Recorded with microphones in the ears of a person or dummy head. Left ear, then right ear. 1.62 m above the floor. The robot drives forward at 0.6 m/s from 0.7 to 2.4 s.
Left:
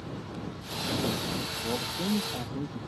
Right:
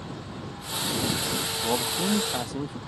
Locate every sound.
1.6 s a man speaking: 65° right (ahead or behind); by 2.8 s 55° right (ahead or behind)